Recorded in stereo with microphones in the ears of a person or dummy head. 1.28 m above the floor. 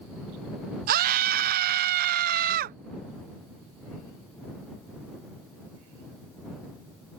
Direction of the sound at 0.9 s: 45° right (ahead or behind).